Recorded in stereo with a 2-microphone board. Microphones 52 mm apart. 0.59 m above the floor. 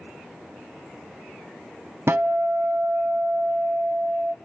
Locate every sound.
2.1 s a guitar: 50° right (ahead or behind), 0.8 m